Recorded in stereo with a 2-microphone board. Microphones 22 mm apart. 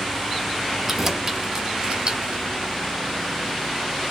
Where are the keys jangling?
10° right (ahead or behind), 1.1 m; by 2.4 s 45° right (ahead or behind), 1.3 m.